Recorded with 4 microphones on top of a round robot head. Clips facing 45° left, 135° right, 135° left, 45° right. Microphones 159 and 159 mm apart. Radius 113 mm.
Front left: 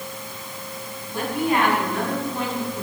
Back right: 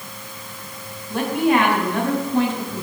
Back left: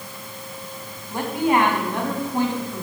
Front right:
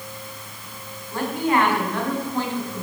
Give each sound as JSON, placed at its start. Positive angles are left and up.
{"t": 1.1, "sound": "a woman speaking", "azimuth_deg": -155, "distance_m": 5.0}